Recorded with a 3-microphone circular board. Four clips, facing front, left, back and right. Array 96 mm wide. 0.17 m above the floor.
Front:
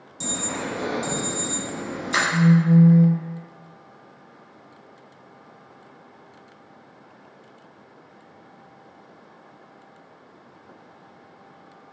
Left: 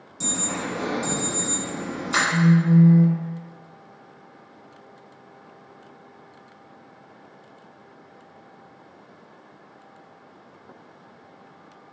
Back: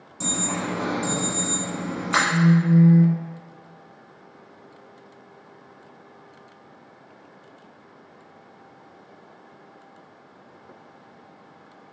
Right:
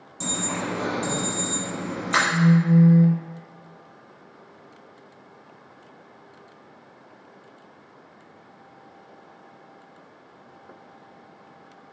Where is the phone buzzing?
175° left, 1.0 m.